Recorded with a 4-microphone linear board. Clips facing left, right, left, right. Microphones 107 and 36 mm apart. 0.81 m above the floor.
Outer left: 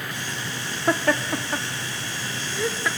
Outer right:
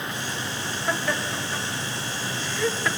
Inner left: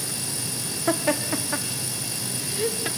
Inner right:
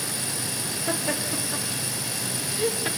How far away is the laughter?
About 1.2 m.